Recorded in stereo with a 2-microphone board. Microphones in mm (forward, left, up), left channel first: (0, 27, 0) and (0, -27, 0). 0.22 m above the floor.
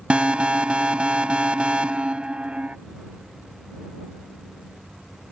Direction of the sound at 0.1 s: 20° right (ahead or behind).